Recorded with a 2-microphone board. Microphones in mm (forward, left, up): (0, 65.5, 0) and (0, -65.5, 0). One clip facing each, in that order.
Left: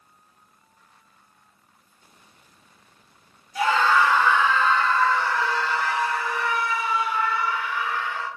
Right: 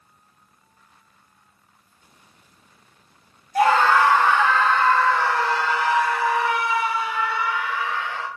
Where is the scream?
50° right (ahead or behind), 1.4 m; by 8.3 s 80° right, 5.5 m.